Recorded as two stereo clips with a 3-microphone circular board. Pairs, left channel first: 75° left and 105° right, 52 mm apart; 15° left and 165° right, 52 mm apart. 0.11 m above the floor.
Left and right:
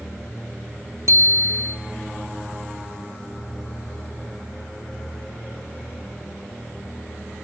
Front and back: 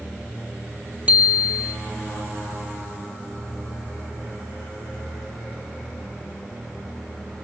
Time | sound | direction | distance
1.1 | a bicycle bell | 100° right | 2 m